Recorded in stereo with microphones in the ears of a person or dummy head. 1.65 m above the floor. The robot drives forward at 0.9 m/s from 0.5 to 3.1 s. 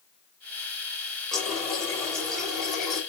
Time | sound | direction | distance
1.3 | a running tap | 5° left (ahead or behind) | 4.5 m